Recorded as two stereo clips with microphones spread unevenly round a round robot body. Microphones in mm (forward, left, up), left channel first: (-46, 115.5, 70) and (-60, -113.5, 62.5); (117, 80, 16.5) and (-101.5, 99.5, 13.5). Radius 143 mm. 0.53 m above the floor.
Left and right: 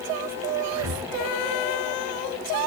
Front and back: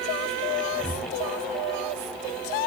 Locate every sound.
0.7 s breathing: 105° right, 5.5 m